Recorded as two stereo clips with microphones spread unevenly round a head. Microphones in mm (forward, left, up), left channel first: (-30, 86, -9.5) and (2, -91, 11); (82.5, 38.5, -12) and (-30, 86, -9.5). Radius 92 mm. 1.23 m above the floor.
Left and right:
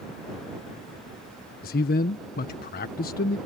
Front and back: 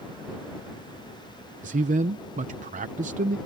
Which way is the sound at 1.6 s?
140° left.